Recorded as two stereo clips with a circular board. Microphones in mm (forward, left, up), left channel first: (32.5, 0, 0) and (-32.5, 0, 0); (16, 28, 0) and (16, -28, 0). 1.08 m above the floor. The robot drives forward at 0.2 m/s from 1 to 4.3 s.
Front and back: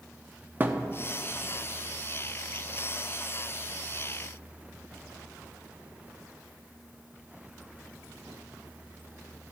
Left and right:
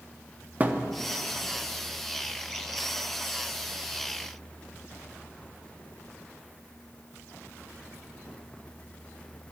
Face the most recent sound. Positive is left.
turn(degrees=-160)